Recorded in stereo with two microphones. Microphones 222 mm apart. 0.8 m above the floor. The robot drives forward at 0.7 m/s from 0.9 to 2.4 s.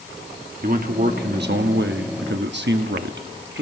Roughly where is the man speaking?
Right.